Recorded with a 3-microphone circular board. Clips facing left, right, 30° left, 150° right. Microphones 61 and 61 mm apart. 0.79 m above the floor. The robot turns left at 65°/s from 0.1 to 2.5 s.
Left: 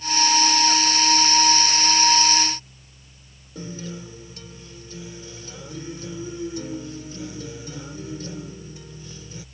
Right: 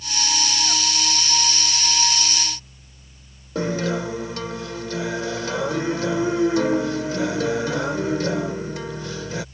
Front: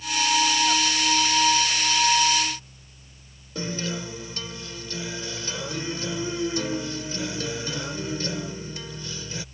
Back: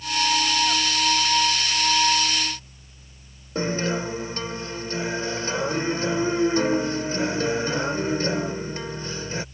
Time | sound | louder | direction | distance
3.5 | a guitar | right 12 dB, back 6 dB | 95° right | ?